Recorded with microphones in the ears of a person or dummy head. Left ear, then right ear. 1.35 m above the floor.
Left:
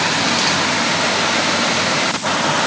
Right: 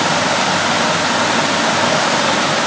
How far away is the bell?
No bell in this recording.